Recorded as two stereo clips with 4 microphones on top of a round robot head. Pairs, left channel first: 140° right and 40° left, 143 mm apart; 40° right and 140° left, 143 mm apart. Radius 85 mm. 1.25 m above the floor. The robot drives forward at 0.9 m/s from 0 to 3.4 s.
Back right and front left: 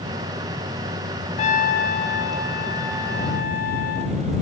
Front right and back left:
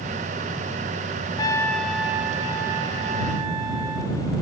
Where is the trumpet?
100° right, 0.8 m; by 4.1 s 160° right, 2 m.